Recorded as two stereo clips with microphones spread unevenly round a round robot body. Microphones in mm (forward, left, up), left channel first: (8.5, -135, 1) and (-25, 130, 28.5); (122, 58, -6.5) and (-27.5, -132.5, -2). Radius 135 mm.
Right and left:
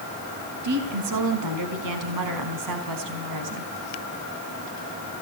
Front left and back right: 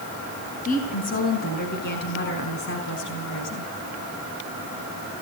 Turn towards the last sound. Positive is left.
turn(degrees=95)